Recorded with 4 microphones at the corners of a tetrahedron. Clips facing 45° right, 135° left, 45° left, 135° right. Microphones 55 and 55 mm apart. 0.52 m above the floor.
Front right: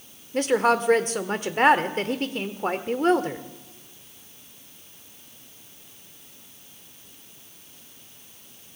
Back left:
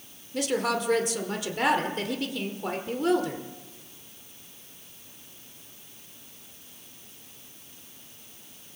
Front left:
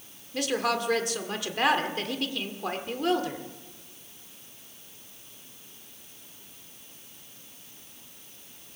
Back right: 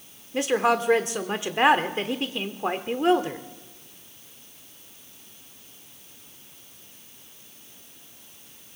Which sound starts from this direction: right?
A woman speaking, at 0.3 s.